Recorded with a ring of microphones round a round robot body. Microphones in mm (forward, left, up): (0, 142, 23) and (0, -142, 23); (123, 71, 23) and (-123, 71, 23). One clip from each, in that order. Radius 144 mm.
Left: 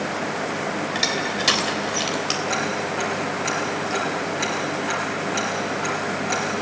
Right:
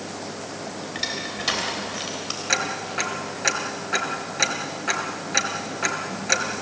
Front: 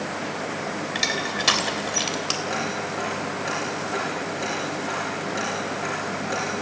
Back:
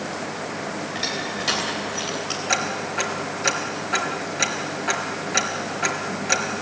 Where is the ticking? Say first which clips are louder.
Left 1 dB, back 3 dB; 150° right, 3 m.